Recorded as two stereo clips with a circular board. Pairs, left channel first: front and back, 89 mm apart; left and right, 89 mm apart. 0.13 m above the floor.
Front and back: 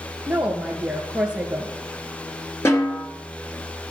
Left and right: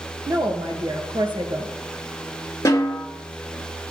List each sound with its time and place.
0.3 s a woman speaking: 105° right, 2 m
2.6 s a snare drum: 45° left, 2.5 m